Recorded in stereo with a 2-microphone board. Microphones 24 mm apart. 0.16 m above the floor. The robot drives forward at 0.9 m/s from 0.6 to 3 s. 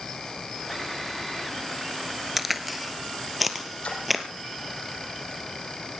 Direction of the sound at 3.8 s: 55° left (ahead or behind).